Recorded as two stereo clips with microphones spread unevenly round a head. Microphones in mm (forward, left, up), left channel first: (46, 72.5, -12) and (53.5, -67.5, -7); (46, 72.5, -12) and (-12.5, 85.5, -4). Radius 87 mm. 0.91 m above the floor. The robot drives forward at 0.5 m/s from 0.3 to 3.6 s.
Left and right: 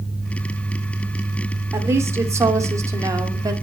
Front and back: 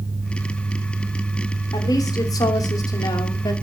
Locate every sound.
1.7 s a woman speaking: 15° right, 3 m; by 3.5 s 20° right, 2 m